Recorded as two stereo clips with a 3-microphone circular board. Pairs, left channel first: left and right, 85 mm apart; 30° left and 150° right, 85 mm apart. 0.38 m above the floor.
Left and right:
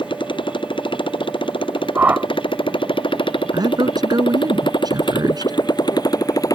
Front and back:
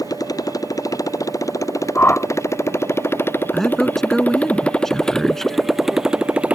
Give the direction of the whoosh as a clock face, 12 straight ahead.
1 o'clock.